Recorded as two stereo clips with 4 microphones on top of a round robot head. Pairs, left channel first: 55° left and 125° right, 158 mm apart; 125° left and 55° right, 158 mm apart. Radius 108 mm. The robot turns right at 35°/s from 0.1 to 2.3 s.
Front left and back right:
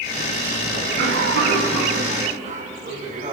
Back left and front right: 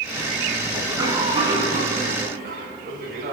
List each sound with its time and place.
0.7 s a cough: 135° right, 4.5 m; by 3.3 s 80° right, 4.5 m